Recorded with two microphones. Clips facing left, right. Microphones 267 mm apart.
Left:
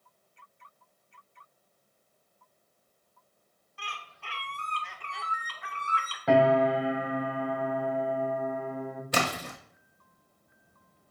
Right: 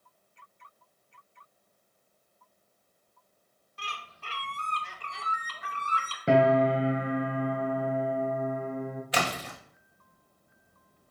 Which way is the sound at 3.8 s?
45° right (ahead or behind).